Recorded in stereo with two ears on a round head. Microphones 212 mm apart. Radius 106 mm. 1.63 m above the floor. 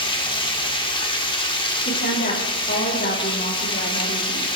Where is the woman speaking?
40° left (ahead or behind), 3.5 m.